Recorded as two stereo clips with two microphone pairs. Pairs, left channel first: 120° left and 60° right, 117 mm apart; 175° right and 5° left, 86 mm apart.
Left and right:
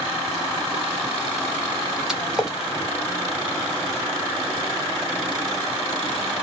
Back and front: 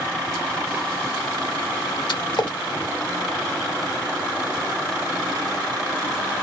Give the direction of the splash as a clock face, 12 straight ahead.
5 o'clock.